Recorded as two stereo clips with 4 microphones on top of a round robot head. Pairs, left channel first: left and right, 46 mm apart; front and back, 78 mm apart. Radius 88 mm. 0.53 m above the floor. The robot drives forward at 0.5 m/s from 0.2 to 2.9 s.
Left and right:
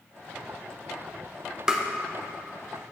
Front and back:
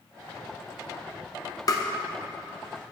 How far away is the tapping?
About 0.8 m.